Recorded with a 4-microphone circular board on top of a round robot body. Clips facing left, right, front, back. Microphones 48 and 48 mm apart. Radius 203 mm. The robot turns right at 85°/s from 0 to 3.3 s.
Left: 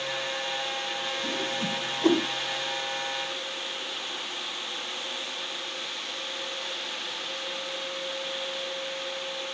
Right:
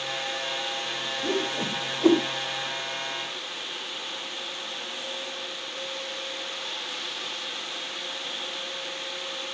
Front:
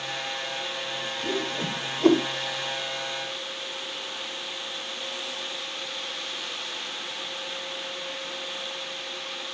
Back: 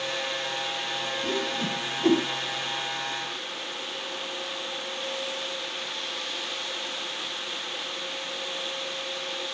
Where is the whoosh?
75° right, 2.5 m; by 2.2 s 10° left, 2.5 m.